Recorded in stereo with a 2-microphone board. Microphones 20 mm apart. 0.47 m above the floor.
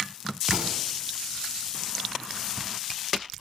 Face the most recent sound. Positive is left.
turn(degrees=-65)  # may be behind; listen again after turning